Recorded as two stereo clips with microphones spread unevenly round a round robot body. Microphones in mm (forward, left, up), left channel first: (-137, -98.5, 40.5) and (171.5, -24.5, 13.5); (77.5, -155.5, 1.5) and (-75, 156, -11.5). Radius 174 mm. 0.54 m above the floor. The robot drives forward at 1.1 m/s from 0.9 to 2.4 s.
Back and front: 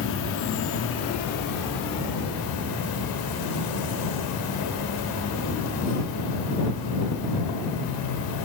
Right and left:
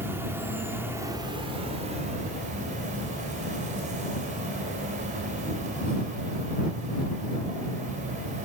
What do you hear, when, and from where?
0.0 s an insect: 165° right, 1.2 m; by 8.5 s 175° right, 2.5 m